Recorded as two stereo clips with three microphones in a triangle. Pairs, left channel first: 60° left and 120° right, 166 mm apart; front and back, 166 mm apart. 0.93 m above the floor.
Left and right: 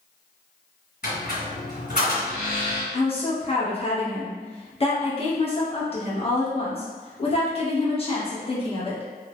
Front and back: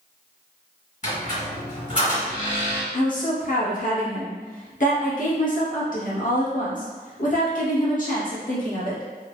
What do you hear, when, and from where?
1.0 s a squeak: 40° left, 1.7 m
2.9 s a woman speaking: 15° left, 1.0 m